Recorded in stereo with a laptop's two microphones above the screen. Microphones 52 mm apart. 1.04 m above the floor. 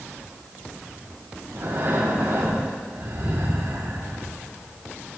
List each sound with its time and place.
1.5 s breathing: 70° right (ahead or behind), 2.5 m